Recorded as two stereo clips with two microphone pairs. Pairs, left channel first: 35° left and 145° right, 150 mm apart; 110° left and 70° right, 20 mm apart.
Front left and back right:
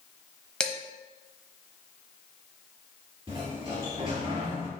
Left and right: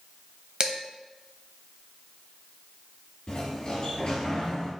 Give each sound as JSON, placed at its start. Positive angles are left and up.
{"t": 0.6, "sound": "dishes clattering", "azimuth_deg": -45, "distance_m": 0.8}
{"t": 3.3, "sound": "a sliding door", "azimuth_deg": 165, "distance_m": 2.0}